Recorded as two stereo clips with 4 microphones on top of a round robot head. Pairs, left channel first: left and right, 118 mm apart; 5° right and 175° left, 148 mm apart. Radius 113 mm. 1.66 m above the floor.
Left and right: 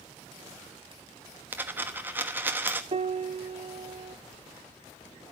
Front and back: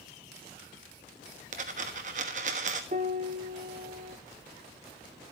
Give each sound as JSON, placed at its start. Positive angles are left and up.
{"t": 1.5, "sound": "a dropped coin", "azimuth_deg": -155, "distance_m": 1.2}
{"t": 2.9, "sound": "a piano", "azimuth_deg": -125, "distance_m": 0.8}